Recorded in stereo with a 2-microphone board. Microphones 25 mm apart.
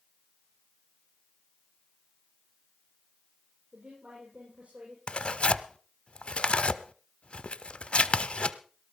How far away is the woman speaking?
About 8.5 m.